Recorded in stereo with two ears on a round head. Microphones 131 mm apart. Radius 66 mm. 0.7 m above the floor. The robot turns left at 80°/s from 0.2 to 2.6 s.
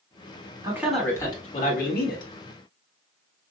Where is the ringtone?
No ringtone in this recording.